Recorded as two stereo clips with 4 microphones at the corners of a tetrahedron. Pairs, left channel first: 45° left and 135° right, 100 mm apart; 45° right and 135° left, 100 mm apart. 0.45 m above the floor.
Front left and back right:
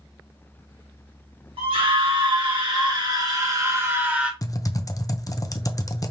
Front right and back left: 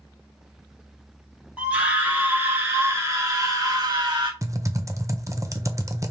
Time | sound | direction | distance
1.6 | a scream | 150° right | 2.5 m
4.4 | typing on a keyboard | 90° left | 0.6 m